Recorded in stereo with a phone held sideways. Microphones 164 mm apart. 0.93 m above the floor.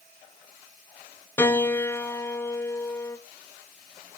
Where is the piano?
15° left (ahead or behind), 0.7 m.